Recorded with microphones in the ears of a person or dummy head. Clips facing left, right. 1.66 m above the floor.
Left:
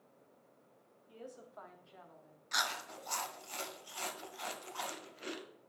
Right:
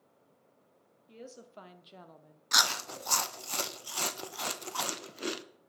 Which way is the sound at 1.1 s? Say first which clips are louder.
Right 2 dB; 25° right (ahead or behind).